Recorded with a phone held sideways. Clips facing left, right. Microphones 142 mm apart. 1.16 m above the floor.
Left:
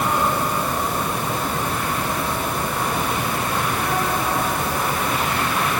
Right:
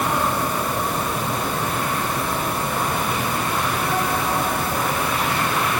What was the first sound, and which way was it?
Only background noise.